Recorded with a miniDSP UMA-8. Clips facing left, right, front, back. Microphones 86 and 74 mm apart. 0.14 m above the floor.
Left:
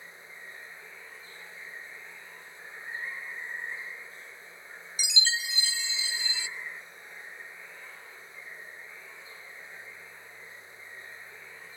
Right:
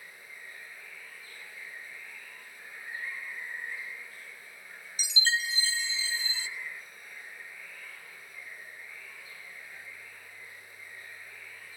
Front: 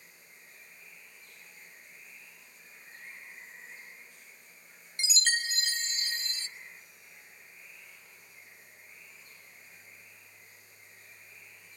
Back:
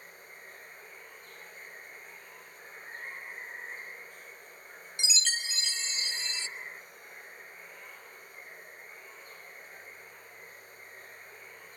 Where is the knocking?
No knocking in this recording.